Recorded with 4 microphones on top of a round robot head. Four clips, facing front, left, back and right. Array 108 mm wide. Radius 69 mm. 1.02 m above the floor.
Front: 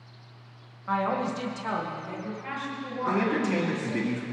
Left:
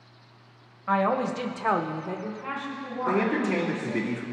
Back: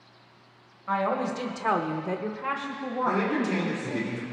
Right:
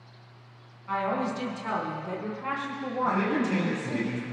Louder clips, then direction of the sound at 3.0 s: Left 2 dB, even; 65° left.